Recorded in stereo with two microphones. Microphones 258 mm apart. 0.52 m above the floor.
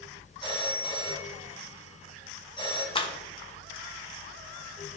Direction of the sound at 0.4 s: 20° left (ahead or behind).